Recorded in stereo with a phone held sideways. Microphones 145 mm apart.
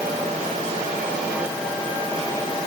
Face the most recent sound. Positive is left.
No sound to turn to.